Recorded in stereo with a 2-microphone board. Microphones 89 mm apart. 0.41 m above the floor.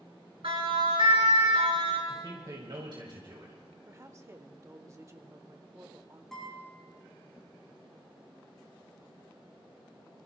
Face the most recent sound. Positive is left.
turn(degrees=5)  # may be behind; listen again after turning